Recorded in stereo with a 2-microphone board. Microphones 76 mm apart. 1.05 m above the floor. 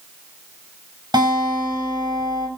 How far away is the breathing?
I don't hear breathing.